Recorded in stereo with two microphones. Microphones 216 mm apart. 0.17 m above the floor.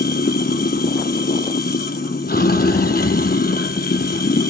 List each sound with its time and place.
0.0 s running water: 45° left (ahead or behind), 0.9 m